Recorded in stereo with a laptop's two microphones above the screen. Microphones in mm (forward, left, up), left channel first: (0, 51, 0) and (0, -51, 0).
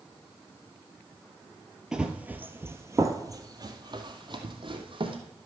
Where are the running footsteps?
5° right (ahead or behind), 1.4 m; by 5.2 s 55° right (ahead or behind), 2.5 m.